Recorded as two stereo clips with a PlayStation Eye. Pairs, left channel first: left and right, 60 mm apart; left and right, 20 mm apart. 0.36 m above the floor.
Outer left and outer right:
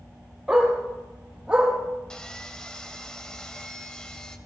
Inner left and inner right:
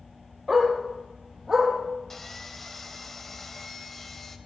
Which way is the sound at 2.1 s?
10° left (ahead or behind).